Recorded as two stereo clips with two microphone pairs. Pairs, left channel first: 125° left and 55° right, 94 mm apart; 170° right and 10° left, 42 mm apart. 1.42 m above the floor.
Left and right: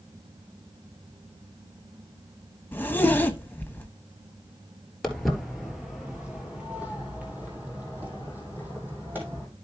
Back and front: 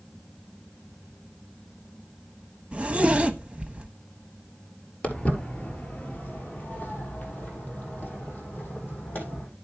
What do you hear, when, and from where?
2.7 s a zipper: 60° left, 0.9 m
5.0 s footsteps: 155° right, 1.5 m; by 9.5 s 125° right, 3.5 m